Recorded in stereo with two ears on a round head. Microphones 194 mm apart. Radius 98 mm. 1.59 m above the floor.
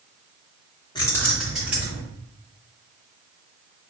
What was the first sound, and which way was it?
Keys jangling, 20° left (ahead or behind).